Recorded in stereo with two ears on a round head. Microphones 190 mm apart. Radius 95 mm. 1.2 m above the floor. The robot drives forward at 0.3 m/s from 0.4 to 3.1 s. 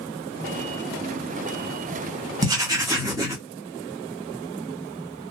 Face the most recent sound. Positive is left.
turn(degrees=-15)  # may be behind; listen again after turning